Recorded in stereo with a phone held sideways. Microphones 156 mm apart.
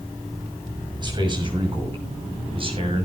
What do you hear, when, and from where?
1.0 s a man speaking: 30° right (ahead or behind), 6.5 m; by 3.0 s 40° right (ahead or behind), 7.5 m